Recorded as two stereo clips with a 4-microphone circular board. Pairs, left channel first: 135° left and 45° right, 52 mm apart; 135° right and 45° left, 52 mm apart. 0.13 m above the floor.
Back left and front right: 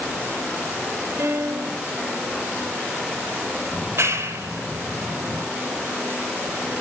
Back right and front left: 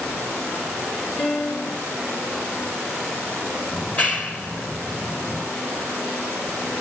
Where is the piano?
80° right, 2.5 m.